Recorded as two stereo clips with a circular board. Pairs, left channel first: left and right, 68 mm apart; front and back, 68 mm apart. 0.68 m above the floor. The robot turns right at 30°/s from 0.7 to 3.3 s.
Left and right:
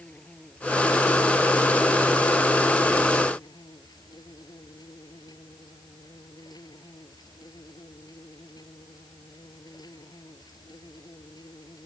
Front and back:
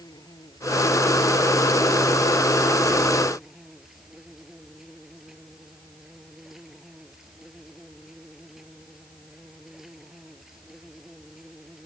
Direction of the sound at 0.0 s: 15° left.